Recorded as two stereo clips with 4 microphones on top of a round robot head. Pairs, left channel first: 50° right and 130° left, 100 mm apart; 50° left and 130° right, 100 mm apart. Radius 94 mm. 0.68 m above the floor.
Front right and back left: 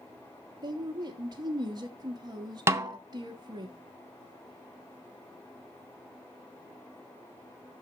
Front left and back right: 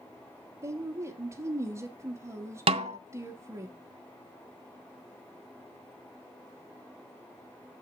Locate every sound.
0.6 s a woman speaking: 175° left, 1.2 m
2.7 s a snare drum: 165° right, 0.5 m